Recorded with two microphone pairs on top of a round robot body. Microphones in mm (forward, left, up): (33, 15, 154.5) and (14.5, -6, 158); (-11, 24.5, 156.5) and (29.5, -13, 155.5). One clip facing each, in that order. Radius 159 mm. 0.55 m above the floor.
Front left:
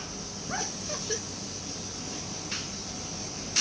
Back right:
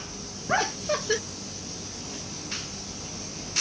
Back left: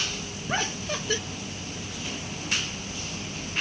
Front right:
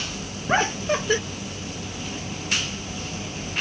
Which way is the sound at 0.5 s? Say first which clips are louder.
Back right 10 dB, front right 8 dB; 85° right.